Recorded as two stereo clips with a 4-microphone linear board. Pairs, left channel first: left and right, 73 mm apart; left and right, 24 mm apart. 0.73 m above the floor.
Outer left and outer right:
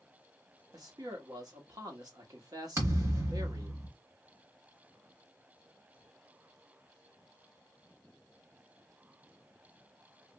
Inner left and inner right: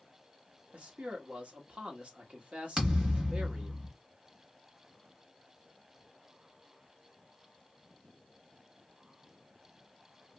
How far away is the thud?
About 1.4 m.